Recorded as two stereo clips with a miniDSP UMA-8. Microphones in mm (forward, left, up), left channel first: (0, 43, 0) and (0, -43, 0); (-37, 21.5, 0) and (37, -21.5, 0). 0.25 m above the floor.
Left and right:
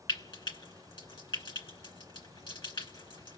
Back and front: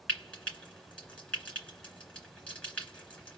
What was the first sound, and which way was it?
Frying, 75° left.